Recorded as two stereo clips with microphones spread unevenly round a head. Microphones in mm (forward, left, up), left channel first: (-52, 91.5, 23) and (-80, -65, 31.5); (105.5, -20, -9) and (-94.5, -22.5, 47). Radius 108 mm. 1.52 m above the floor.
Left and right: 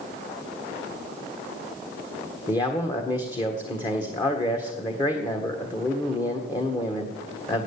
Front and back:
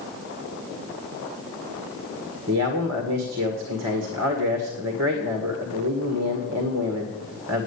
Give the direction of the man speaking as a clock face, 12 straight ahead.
7 o'clock.